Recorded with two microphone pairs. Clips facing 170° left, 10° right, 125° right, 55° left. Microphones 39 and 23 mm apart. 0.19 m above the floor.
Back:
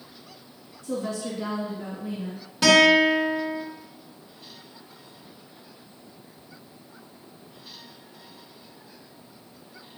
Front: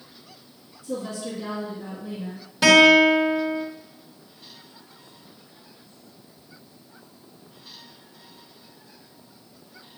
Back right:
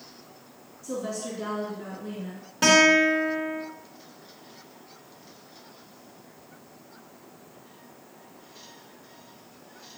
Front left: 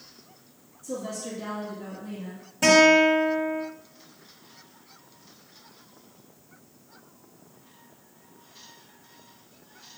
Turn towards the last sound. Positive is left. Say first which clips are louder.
# front 3 dB, front left 1 dB
turn(degrees=-100)